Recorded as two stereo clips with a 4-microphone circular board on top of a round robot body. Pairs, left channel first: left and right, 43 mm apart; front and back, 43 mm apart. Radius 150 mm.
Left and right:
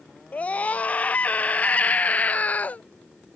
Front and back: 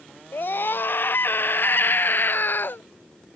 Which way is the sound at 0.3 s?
35° left.